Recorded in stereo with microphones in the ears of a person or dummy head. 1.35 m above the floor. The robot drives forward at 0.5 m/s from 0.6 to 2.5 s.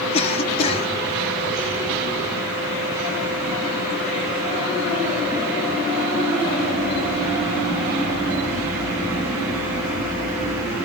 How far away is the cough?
About 0.5 m.